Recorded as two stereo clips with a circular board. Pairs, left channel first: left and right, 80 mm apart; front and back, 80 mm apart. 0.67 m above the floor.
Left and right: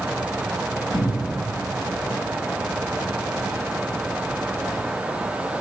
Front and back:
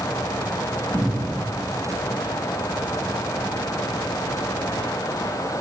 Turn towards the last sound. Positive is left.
turn(degrees=115)